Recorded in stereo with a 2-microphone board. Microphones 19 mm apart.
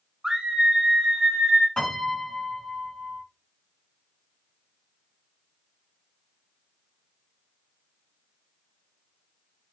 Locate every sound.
0.2 s a scream: 25° right (ahead or behind), 0.5 m; by 1.7 s 50° right (ahead or behind), 1.5 m
1.8 s a piano: 70° left (ahead or behind), 1.9 m